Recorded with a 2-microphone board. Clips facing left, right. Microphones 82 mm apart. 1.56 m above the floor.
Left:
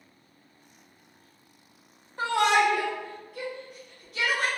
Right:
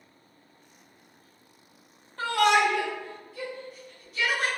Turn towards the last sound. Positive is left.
turn(degrees=70)  # may be behind; listen again after turning